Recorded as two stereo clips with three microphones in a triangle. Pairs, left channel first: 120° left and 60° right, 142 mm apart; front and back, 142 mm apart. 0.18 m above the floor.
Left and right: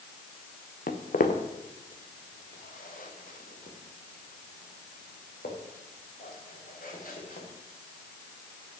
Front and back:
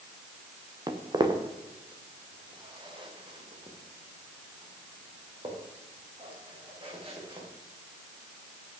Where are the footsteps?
120° left, 1.4 m; by 7.5 s 130° left, 5 m.